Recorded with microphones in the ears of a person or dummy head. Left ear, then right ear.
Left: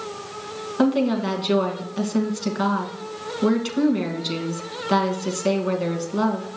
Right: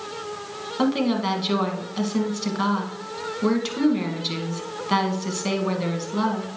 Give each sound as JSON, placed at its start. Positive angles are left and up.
{"t": 0.8, "sound": "a woman speaking", "side_deg": 0, "distance_m": 1.8}